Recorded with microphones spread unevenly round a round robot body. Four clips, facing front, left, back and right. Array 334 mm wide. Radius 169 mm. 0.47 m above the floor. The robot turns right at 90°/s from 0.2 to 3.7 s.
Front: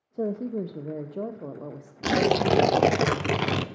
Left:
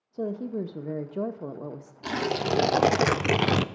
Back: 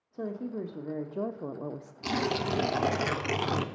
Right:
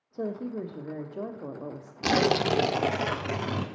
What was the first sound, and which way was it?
A woman speaking, 20° left.